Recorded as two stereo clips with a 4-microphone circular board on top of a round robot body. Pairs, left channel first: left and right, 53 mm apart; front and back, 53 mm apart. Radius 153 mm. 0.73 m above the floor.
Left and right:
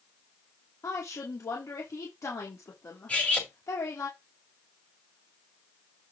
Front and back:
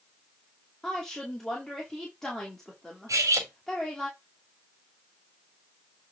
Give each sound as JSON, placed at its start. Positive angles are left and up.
{"t": 0.8, "sound": "a woman speaking", "azimuth_deg": 80, "distance_m": 2.5}
{"t": 3.1, "sound": "cutlery clinking", "azimuth_deg": 160, "distance_m": 2.5}